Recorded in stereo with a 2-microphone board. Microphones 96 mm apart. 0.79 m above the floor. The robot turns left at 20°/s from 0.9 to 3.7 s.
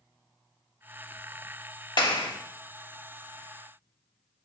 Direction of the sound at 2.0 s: 50° left (ahead or behind).